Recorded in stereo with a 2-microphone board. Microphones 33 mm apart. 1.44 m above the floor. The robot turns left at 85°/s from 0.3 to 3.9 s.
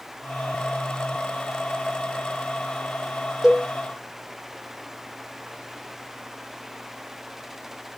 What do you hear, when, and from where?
3.4 s a cowbell: 10° right (ahead or behind), 0.9 m; by 3.7 s 30° right (ahead or behind), 0.9 m